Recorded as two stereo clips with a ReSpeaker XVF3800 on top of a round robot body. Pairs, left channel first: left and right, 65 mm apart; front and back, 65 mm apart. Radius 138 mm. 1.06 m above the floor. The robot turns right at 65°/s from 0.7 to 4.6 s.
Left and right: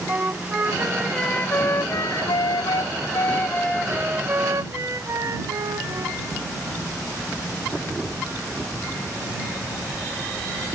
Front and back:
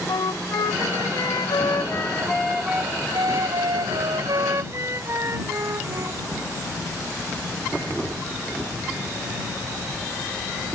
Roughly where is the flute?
Ahead right.